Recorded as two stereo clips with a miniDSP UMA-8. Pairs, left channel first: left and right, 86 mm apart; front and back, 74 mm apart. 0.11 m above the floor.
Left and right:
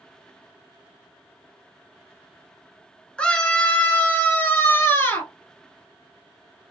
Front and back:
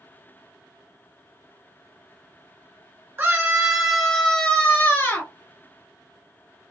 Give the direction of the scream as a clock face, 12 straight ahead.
7 o'clock.